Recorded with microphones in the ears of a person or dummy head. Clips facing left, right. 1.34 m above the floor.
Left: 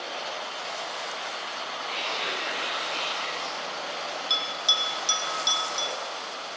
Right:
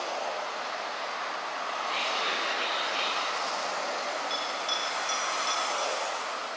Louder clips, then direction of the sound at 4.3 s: Right 1 dB; 85° left.